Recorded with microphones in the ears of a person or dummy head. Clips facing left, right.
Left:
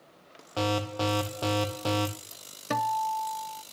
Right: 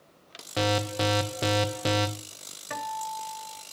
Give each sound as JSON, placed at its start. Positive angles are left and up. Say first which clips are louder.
{"t": 0.6, "sound": "an alarm", "louder": "right 2 dB", "side_deg": -20, "distance_m": 0.8}
{"t": 2.7, "sound": "a guitar", "louder": "left 6 dB", "side_deg": 60, "distance_m": 0.7}